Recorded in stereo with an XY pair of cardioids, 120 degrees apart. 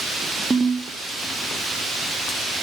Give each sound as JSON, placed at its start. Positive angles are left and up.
{"t": 0.5, "sound": "a ringtone", "azimuth_deg": -25, "distance_m": 1.9}